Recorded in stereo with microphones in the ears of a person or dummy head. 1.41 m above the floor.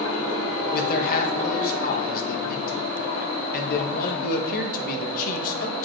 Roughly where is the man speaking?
Left.